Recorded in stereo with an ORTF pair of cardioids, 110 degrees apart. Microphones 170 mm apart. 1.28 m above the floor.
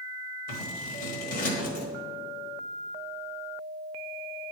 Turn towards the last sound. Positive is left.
turn(degrees=60)